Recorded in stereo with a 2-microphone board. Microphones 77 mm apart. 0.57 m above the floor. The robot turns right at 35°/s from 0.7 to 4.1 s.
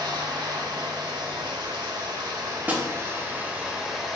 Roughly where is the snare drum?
Centre.